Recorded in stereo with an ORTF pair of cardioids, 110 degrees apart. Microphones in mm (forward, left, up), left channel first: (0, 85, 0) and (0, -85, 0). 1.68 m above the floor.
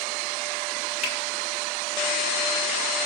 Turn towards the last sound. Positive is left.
turn(degrees=60)